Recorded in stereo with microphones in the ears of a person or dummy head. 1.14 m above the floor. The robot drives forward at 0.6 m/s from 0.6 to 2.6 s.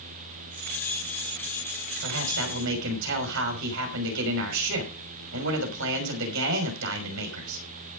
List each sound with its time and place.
2.0 s a man speaking: 75° right (ahead or behind), 6 m; by 7.6 s 70° right (ahead or behind), 6 m